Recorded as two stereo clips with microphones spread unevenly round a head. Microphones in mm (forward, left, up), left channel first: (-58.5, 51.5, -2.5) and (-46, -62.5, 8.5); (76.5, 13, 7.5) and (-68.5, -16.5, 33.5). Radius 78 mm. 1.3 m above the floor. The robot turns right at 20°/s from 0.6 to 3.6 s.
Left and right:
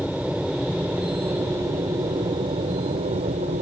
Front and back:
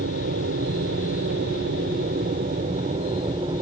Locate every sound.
0.0 s an aircraft: 170° right; by 3.6 s 110° right